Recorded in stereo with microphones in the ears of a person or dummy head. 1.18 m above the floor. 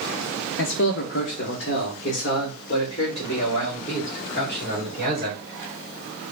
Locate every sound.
0.6 s a man speaking: 60° left (ahead or behind), 0.5 m; by 5.4 s 35° left (ahead or behind), 3 m